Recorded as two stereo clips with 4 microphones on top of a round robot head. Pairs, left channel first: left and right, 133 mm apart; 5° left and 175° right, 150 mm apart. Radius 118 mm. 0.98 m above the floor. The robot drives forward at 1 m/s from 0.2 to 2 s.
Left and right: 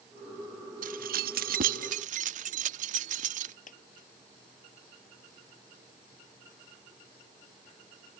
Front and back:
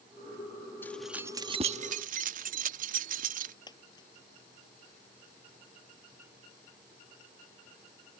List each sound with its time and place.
0.8 s keys jangling: 70° right; by 3.5 s 130° right
3.7 s a dropped coin: 70° left